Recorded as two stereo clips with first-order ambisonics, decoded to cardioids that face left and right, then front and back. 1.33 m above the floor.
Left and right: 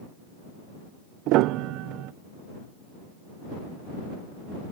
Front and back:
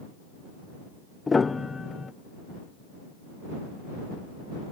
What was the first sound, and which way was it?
A piano, 75° right.